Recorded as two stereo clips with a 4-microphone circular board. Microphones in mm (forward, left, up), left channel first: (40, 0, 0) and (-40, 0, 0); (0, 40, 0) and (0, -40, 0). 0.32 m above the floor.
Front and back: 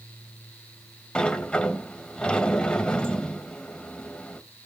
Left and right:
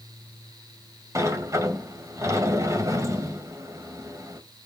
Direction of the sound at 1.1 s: 70° right.